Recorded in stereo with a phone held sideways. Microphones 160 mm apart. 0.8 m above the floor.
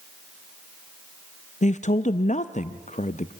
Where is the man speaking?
50° left (ahead or behind), 0.5 m.